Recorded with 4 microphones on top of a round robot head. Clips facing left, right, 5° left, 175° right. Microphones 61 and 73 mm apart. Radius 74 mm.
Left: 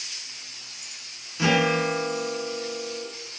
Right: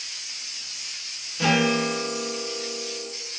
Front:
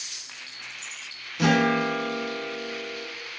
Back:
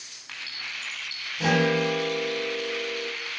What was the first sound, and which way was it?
A guitar, 15° left.